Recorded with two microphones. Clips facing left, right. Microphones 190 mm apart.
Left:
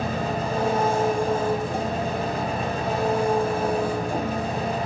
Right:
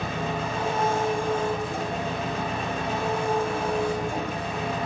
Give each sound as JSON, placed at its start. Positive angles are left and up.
{"t": 0.0, "sound": "an engine running", "side_deg": 40, "distance_m": 1.8}